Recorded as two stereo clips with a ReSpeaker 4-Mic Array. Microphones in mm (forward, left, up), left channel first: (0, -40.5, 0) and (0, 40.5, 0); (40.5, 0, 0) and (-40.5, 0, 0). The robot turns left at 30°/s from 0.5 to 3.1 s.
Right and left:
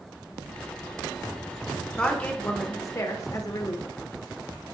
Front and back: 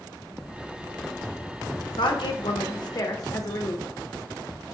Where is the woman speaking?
10° right, 0.8 m; by 3.9 s 45° right, 0.8 m.